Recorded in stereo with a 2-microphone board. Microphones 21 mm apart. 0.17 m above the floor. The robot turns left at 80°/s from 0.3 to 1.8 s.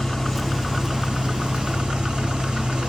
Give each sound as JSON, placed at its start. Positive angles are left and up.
{"t": 0.0, "sound": "an engine running", "azimuth_deg": 15, "distance_m": 3.5}